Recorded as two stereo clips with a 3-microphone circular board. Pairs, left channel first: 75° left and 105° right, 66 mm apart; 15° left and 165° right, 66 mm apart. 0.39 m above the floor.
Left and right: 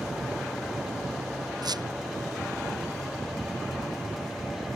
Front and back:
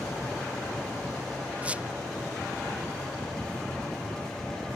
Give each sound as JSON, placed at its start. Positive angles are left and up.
{"t": 1.6, "sound": "a squeak", "azimuth_deg": -95}